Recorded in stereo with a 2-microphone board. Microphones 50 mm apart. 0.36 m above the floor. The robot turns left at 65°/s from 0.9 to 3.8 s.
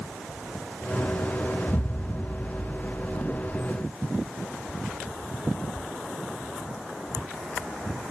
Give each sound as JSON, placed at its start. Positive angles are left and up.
{"t": 1.7, "sound": "an explosion", "azimuth_deg": 90, "distance_m": 0.7}